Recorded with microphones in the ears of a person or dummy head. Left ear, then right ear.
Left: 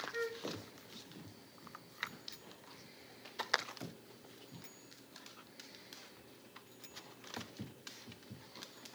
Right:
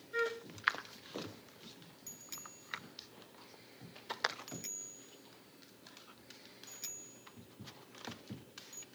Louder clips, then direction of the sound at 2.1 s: Right 1 dB; 40° right (ahead or behind).